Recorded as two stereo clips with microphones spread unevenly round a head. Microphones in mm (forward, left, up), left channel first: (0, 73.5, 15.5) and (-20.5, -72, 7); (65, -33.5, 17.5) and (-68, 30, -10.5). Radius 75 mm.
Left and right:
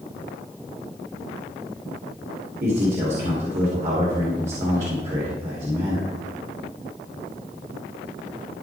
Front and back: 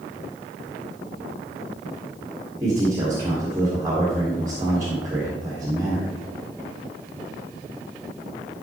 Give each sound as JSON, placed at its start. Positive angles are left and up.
{"t": 2.6, "sound": "a man speaking", "azimuth_deg": -140, "distance_m": 2.5}